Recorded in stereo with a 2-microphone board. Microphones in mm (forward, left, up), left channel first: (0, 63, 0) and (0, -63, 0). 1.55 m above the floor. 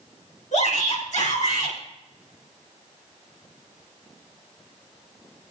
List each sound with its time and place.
0.5 s a shout: 80° left, 6.5 m; by 1.8 s 85° left, 6.5 m